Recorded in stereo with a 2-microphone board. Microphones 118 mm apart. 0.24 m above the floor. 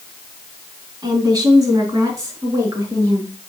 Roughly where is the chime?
I don't hear a chime.